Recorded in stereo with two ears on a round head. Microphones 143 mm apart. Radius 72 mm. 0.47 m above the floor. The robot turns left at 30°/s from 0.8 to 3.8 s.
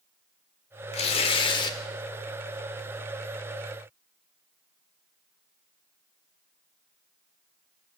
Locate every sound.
0.9 s tearing paper: 40° left (ahead or behind), 1.2 m; by 1.8 s 25° left (ahead or behind), 1.2 m